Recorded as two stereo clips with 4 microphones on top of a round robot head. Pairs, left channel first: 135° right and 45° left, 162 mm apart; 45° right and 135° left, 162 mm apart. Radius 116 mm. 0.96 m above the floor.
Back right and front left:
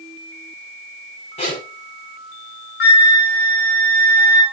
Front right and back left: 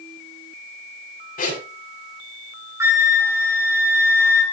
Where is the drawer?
I don't hear a drawer.